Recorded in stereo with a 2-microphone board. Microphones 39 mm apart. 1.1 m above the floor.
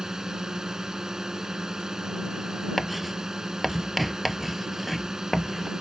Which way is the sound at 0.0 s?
15° right (ahead or behind).